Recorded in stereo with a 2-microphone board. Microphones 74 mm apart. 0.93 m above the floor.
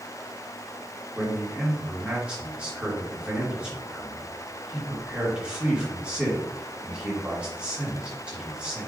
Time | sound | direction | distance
1.1 | a man speaking | 15° right (ahead or behind) | 1.4 m